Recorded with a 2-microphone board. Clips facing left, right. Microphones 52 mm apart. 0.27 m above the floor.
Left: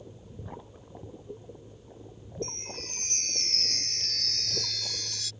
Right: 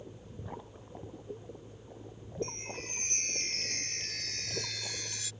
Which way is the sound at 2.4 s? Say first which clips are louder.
Even; 20° right (ahead or behind).